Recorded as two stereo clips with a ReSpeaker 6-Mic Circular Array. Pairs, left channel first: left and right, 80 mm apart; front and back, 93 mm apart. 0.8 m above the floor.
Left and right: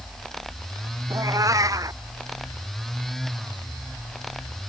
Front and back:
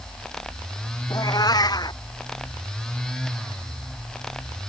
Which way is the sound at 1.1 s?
45° right.